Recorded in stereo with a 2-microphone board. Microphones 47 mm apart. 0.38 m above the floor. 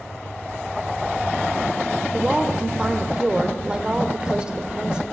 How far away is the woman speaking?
About 0.9 m.